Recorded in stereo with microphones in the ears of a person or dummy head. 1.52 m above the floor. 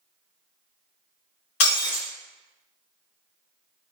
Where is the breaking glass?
60° left (ahead or behind), 1.6 m.